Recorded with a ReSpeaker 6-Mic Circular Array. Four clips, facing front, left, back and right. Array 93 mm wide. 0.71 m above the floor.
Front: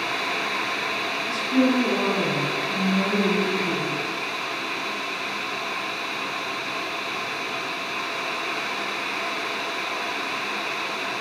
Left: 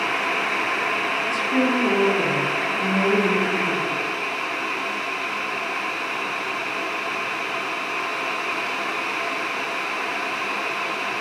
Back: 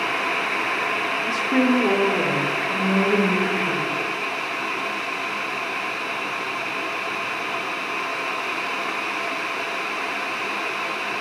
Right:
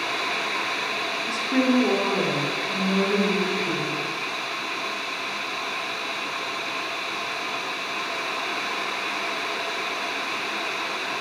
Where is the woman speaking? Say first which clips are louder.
Right 1 dB, back 1 dB; 165° right, 1.5 m; by 4.0 s 160° right, 4 m.